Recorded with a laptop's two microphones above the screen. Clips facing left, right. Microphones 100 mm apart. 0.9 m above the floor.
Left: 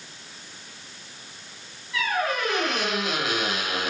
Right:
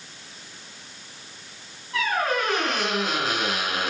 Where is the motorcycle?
No motorcycle in this recording.